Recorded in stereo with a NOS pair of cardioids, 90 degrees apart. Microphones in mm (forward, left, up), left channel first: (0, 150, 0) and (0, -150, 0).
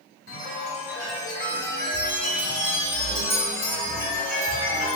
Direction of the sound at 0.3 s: 30° left.